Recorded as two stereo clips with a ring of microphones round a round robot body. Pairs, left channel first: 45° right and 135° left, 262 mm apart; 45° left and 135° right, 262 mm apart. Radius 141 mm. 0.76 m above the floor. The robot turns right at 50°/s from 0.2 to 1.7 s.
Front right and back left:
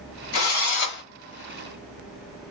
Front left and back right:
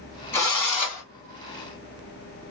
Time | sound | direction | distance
0.3 | a drill | 35° right | 1.5 m